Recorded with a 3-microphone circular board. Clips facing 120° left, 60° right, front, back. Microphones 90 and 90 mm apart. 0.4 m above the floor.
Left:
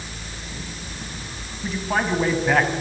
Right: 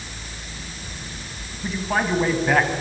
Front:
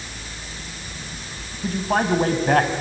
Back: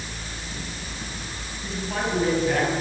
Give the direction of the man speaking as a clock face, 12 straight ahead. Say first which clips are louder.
Even, front 7 dB; 11 o'clock.